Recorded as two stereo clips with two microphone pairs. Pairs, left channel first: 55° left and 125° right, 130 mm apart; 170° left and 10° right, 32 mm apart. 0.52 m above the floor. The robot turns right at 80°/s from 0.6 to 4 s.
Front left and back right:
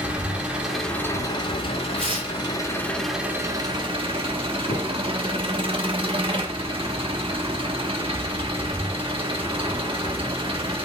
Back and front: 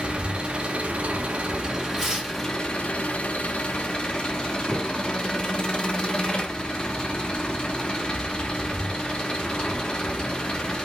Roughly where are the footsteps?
Left.